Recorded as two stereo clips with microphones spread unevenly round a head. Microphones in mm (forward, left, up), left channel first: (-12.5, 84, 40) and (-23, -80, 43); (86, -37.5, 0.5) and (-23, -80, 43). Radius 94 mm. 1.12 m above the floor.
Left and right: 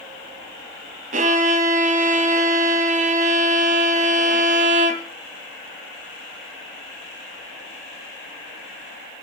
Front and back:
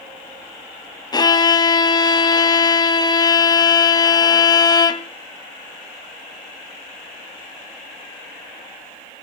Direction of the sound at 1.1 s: 45° right.